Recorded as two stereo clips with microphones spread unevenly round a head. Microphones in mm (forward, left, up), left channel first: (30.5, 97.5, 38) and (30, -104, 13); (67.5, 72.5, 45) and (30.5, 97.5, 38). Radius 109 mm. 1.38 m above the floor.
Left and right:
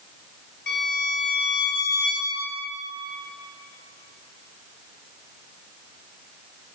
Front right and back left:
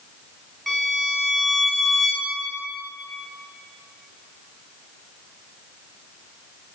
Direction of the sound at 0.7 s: 50° left.